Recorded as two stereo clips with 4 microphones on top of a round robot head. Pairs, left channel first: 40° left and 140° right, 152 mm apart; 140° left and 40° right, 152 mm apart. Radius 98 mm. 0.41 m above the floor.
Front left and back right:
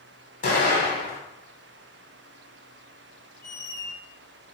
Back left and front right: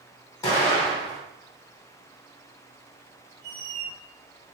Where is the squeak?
35° left, 0.8 m.